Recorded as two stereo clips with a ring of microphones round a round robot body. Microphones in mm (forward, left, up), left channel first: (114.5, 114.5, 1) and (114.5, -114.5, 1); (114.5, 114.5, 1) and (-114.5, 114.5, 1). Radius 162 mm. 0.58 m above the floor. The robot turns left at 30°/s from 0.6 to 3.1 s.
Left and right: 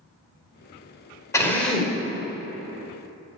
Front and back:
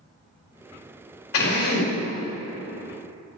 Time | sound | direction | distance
1.3 | a drill | 15° left | 1.9 m